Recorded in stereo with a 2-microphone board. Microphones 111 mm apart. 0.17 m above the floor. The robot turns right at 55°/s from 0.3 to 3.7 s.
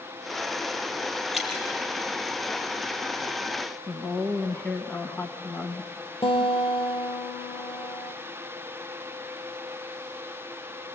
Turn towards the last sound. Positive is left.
turn(degrees=55)  # may be behind; listen again after turning